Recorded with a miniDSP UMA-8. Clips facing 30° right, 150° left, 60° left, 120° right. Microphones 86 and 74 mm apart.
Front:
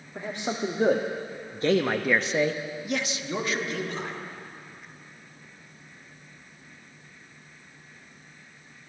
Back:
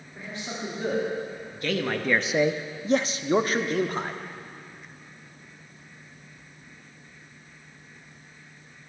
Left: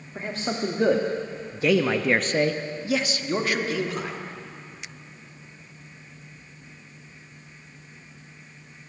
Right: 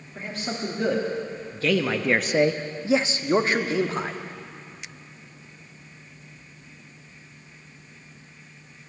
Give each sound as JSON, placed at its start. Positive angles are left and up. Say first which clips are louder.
{"t": 0.1, "sound": "a man speaking", "louder": "front 6 dB, left 3 dB", "azimuth_deg": 0, "distance_m": 1.2}